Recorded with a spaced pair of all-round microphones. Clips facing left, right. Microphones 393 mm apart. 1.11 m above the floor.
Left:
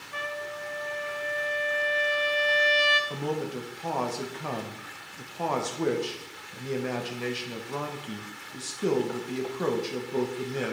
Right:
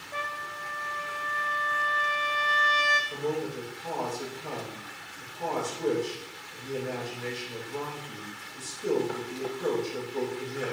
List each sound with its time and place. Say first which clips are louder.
0.1 s a trumpet: left 6 dB; 20° left (ahead or behind), 0.8 m
3.1 s a man speaking: right 4 dB; 80° left, 0.9 m